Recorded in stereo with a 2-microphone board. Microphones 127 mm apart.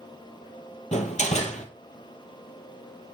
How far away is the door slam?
About 2.5 m.